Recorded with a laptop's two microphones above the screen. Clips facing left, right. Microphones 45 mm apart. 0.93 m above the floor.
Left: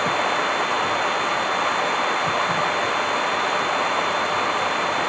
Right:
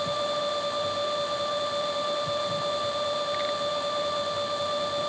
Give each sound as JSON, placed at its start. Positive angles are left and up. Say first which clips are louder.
{"t": 0.0, "sound": "running water", "louder": "left 7 dB", "side_deg": 70}